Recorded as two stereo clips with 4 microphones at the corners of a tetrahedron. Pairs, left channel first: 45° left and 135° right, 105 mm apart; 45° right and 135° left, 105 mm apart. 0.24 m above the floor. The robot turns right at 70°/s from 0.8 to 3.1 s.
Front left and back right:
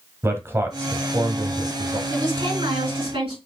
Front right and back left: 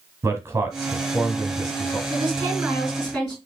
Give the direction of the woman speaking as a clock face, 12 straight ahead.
7 o'clock.